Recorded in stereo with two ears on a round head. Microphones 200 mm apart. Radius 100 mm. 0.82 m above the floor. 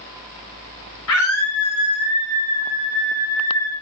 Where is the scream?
70° left (ahead or behind), 3.5 m; by 3.7 s 15° left (ahead or behind), 5 m.